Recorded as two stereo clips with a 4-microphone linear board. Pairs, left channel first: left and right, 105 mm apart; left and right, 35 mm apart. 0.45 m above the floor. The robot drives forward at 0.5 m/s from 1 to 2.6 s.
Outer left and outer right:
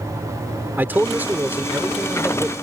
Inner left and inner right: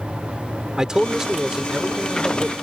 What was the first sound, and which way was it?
A man speaking, 20° right (ahead or behind).